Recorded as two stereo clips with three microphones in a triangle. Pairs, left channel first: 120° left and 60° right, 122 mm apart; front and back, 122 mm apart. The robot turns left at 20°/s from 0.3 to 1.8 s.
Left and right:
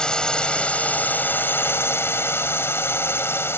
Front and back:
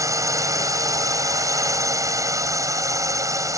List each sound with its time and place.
0.0 s a drone: 165° right; by 3.6 s 165° left